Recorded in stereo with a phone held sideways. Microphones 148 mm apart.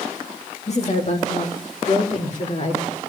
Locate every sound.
0.7 s a woman speaking: 50° left (ahead or behind), 3 m